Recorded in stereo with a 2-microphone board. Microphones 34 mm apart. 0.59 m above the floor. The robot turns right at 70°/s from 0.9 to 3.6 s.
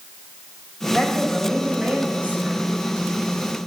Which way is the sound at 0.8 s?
145° left.